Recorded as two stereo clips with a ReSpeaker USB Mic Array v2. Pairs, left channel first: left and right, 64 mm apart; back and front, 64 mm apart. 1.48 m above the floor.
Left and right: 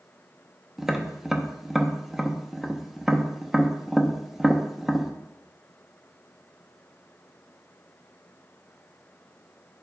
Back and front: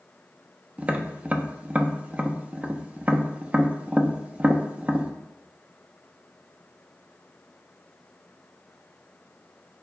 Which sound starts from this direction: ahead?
Tapping, at 0.8 s.